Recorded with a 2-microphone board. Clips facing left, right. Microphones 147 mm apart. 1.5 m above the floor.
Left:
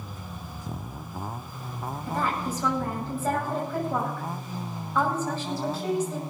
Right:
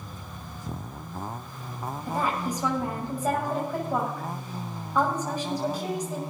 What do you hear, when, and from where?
2.1 s a woman speaking: 15° right (ahead or behind), 8 m